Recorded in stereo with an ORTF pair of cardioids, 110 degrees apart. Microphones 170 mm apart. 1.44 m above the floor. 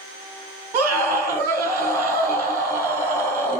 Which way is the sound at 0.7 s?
60° right.